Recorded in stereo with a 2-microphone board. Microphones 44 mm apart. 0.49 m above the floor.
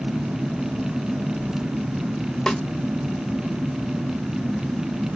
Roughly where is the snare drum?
Centre.